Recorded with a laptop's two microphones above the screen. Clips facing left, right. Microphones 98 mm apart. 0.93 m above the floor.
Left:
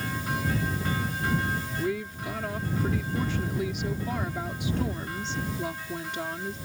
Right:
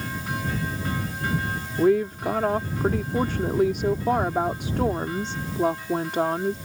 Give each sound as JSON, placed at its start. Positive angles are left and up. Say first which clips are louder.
{"t": 1.8, "sound": "a woman speaking", "louder": "right 15 dB", "side_deg": -55}